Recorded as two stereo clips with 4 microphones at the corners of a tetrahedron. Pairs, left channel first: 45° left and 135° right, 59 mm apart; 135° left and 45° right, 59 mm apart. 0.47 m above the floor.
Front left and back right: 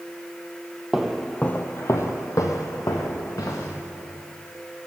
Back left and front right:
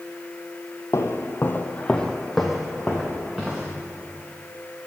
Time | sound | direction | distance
0.9 | footsteps | 145° left | 0.8 m